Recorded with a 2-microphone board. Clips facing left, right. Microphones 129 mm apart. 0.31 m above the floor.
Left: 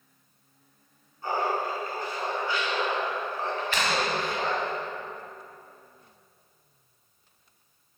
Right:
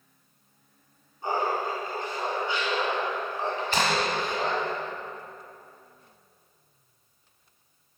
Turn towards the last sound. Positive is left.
turn(degrees=-40)  # may be behind; listen again after turning